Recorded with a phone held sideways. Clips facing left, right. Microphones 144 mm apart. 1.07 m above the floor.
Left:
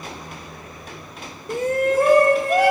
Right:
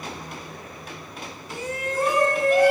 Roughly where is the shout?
Left.